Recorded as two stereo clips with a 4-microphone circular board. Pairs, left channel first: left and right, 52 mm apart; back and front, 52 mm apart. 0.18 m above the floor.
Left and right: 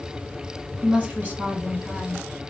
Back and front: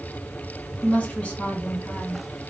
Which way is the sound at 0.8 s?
135° right.